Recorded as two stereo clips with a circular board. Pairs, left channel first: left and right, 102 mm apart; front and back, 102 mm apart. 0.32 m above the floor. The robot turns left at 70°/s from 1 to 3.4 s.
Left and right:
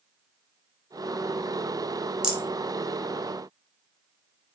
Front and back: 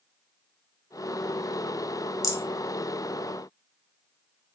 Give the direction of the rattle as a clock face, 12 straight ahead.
12 o'clock.